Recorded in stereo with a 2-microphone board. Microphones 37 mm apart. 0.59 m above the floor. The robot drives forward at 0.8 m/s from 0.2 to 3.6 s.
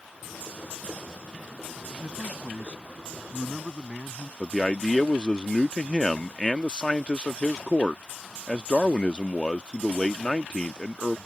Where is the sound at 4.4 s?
25° left (ahead or behind).